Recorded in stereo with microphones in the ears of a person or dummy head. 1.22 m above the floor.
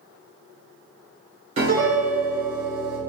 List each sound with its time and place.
1.6 s a piano: 30° right (ahead or behind), 0.9 m